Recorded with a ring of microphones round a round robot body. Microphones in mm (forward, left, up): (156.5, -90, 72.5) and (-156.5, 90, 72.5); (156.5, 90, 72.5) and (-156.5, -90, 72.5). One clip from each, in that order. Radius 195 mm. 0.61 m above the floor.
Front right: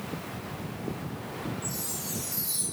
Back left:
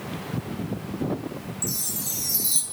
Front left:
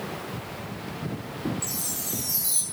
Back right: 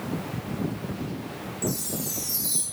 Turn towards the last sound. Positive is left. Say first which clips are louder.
# back left 5 dB, back right 1 dB
turn(degrees=115)